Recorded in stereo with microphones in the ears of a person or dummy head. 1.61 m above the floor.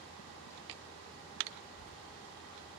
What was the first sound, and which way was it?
A child speaking, 25° left (ahead or behind).